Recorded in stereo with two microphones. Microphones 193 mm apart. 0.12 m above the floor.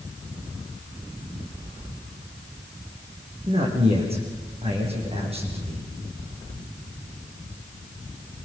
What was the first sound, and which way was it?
A man speaking, 30° right (ahead or behind).